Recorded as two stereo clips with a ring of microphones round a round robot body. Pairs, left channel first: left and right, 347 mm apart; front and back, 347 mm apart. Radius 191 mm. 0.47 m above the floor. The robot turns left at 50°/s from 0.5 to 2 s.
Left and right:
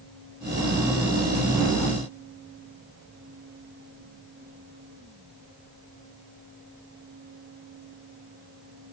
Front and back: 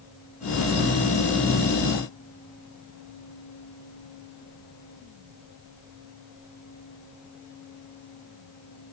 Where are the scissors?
I don't hear scissors.